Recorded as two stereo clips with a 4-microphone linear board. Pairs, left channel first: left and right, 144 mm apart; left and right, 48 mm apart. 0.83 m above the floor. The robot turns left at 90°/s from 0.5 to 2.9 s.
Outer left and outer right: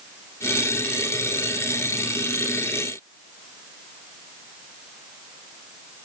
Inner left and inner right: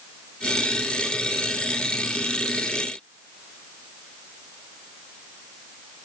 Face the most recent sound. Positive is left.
No sound to turn to.